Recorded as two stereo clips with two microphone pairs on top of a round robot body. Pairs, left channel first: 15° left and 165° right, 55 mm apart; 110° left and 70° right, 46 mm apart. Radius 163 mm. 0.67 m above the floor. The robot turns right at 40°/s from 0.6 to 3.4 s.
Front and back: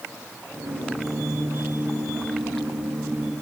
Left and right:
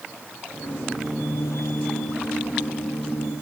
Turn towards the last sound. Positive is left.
No sound to turn to.